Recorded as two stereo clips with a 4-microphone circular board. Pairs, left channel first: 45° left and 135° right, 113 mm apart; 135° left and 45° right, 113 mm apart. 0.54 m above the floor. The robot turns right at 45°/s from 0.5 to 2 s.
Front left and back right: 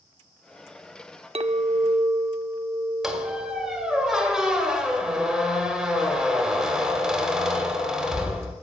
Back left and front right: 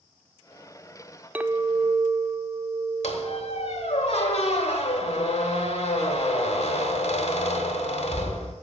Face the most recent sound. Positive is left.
turn(degrees=140)